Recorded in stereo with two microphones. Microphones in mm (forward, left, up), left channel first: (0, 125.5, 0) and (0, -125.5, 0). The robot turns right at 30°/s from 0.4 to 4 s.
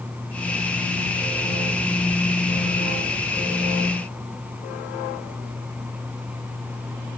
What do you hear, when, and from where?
Only background noise.